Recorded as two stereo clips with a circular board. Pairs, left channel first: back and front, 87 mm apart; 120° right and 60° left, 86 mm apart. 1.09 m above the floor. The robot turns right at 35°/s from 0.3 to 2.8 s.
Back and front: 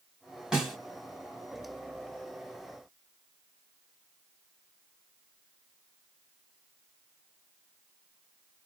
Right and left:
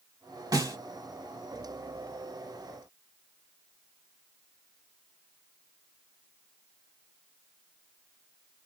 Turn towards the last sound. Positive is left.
turn(degrees=155)